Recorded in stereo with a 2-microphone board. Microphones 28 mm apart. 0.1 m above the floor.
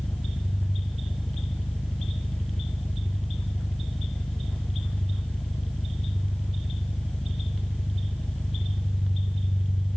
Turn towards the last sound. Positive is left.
turn(degrees=70)  # may be behind; listen again after turning